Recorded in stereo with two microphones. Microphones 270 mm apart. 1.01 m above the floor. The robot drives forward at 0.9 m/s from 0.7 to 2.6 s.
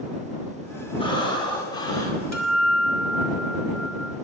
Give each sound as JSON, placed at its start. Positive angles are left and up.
{"t": 1.0, "sound": "breathing", "side_deg": 20, "distance_m": 2.5}
{"t": 2.3, "sound": "a guitar", "side_deg": -75, "distance_m": 2.5}